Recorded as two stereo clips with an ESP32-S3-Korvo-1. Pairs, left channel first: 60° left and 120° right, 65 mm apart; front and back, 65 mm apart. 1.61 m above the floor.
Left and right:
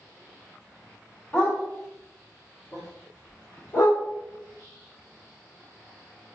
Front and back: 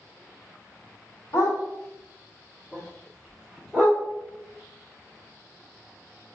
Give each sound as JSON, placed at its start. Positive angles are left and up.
{"t": 1.3, "sound": "a dog barking", "azimuth_deg": 5, "distance_m": 1.5}